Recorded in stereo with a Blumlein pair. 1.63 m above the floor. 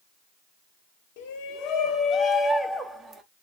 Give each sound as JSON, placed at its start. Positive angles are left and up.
{"t": 1.2, "sound": "a shout", "azimuth_deg": 45, "distance_m": 1.2}